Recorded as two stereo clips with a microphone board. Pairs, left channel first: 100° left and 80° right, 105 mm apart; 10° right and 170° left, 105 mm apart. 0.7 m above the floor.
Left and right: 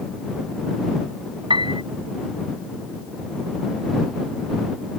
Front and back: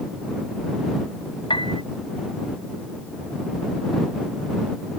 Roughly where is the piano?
Ahead right.